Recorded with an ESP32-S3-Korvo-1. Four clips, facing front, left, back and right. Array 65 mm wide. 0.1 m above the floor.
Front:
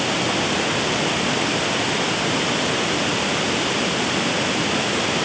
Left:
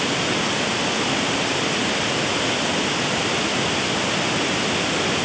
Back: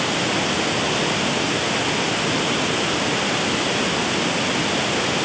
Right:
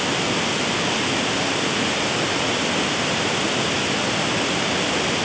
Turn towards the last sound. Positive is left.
No sound to turn to.